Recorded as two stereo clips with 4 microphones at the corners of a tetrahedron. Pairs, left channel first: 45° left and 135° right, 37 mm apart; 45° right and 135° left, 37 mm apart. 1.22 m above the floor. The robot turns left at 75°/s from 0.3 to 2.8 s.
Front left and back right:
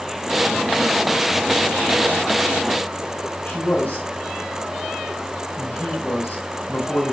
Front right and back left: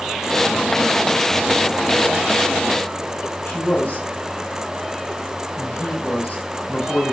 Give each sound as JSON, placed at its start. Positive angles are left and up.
{"t": 3.5, "sound": "a man speaking", "azimuth_deg": 5, "distance_m": 7.0}